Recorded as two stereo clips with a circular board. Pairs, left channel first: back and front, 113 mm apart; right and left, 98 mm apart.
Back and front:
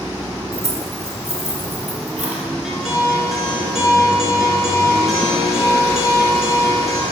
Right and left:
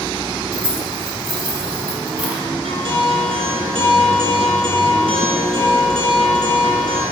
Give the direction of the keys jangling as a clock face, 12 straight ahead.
12 o'clock.